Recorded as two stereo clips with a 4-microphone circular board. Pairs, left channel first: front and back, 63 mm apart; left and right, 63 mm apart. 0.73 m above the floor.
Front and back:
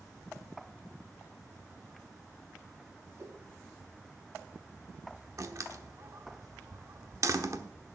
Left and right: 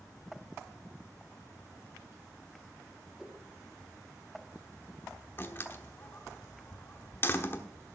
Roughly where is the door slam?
Behind left.